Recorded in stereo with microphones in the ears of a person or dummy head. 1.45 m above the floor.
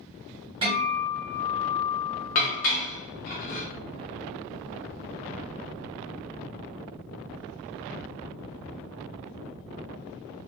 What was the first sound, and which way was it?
A guitar, 30° right (ahead or behind).